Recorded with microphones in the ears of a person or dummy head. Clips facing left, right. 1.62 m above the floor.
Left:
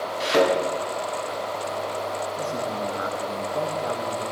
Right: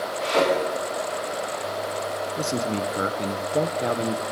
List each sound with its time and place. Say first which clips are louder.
0.2 s a thud: left 2 dB; 50° left (ahead or behind), 6.5 m
2.4 s a man speaking: right 2 dB; 50° right (ahead or behind), 0.7 m